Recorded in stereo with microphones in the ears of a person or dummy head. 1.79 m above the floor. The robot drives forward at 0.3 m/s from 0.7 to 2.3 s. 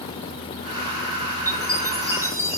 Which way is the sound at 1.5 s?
15° right (ahead or behind).